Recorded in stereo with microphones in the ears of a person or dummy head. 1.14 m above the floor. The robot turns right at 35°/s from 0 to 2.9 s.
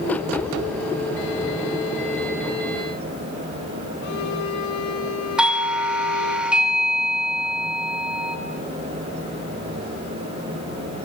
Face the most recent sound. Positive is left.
turn(degrees=-10)  # may be behind; listen again after turning